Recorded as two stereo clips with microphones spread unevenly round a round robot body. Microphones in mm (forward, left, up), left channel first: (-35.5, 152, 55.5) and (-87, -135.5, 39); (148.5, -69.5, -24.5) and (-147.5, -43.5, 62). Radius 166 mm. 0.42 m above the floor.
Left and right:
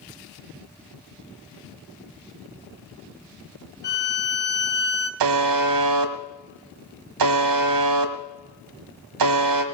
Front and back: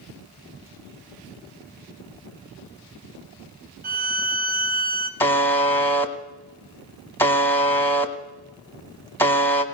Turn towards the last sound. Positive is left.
turn(degrees=-85)